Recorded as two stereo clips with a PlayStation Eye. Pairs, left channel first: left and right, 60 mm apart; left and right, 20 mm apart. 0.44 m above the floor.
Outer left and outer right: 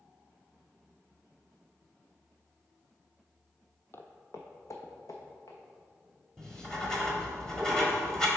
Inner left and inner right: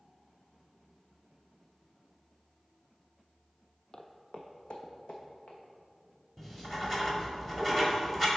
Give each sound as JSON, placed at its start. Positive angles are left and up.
{"t": 3.9, "sound": "footsteps", "side_deg": 40, "distance_m": 0.7}
{"t": 6.4, "sound": "writing", "side_deg": 10, "distance_m": 1.5}